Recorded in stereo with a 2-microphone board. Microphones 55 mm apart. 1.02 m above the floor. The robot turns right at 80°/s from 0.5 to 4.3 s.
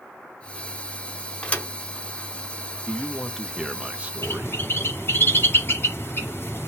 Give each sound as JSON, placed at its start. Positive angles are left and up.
{"t": 1.4, "sound": "a thud", "side_deg": 15, "distance_m": 1.0}
{"t": 2.9, "sound": "a man speaking", "azimuth_deg": 130, "distance_m": 0.8}
{"t": 4.2, "sound": "a bird", "side_deg": 45, "distance_m": 1.3}